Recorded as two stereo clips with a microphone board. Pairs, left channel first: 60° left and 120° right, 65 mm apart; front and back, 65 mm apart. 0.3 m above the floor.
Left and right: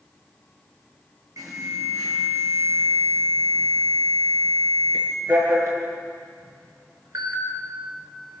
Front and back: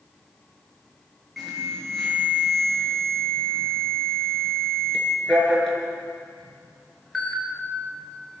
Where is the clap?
No clap in this recording.